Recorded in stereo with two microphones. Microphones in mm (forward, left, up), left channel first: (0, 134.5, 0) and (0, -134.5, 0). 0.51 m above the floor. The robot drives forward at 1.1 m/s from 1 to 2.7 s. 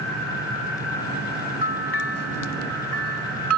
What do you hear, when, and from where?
1.6 s a bell: 45° left (ahead or behind); by 3.6 s 70° left (ahead or behind)